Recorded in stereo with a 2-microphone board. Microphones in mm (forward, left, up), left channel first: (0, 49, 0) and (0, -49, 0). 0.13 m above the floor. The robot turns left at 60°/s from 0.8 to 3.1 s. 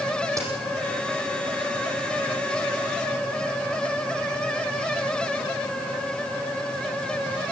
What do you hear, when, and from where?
0.4 s a crack: 30° right (ahead or behind), 5.5 m